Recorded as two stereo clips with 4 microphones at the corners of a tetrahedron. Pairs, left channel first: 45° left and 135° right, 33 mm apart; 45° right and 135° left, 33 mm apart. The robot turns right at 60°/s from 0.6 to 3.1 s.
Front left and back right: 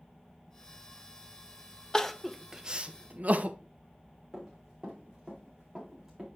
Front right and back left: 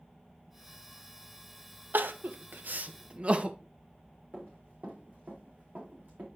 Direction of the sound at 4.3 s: 155° left.